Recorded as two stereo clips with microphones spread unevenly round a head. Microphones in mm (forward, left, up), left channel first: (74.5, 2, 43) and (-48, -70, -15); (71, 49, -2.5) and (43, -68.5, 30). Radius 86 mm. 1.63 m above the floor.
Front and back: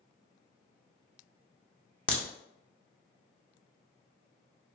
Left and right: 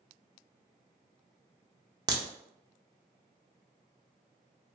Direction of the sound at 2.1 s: 50° right.